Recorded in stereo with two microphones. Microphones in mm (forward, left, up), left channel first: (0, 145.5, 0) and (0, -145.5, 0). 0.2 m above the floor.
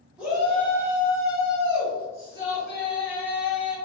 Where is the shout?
5° right (ahead or behind), 1.7 m; by 3.8 s 45° left (ahead or behind), 3 m.